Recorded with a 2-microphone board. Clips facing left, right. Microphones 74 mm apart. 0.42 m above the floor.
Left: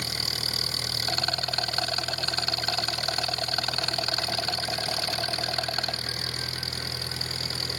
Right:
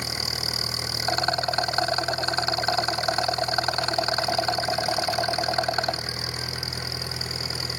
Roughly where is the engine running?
Centre.